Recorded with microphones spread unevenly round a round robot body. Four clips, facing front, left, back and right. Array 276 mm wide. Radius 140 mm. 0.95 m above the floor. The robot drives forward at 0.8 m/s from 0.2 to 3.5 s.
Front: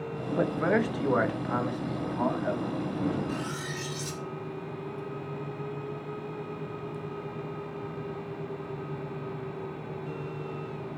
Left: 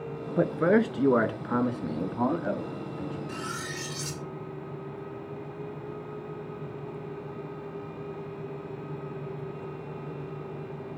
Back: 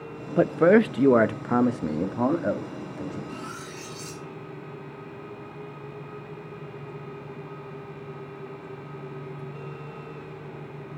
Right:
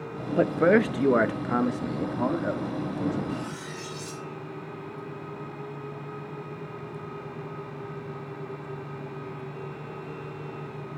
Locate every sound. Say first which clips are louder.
0.4 s a man speaking: right 2 dB, back 8 dB; 170° left, 0.8 m; by 3.2 s straight behind, 3 m
3.3 s cutlery clinking: right 2 dB, front 3 dB; 70° left, 2 m